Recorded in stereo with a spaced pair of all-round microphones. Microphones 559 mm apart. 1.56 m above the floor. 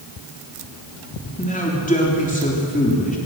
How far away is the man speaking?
About 3.5 m.